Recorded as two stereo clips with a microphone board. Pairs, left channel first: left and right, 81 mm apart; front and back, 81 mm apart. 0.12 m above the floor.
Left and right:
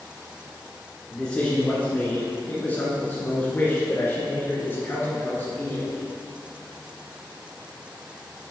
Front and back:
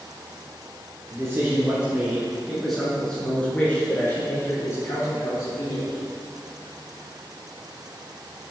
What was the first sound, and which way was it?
A man speaking, 165° left.